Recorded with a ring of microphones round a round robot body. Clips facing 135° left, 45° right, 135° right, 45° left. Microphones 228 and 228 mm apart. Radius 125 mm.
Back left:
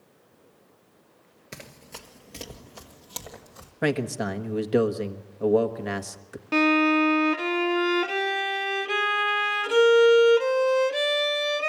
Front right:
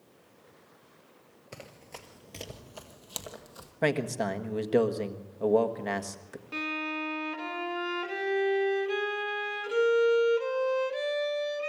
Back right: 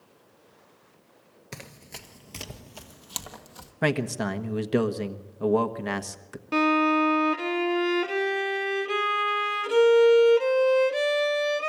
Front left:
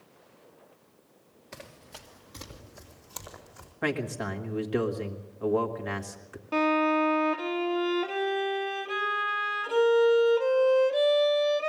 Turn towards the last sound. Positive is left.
turn(degrees=160)